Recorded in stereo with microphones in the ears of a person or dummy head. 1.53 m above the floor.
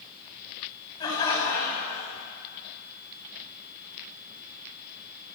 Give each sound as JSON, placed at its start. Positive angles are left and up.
{"t": 1.0, "sound": "laughter", "side_deg": 30, "distance_m": 9.0}